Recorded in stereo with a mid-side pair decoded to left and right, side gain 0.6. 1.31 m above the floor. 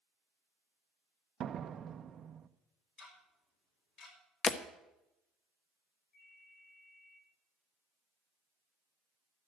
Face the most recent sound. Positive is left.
turn(degrees=50)